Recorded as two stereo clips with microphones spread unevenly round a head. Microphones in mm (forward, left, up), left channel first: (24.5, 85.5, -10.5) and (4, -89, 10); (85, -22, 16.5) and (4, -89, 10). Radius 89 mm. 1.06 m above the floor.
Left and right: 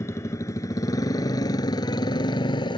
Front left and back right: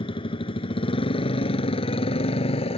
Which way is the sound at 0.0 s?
10° left.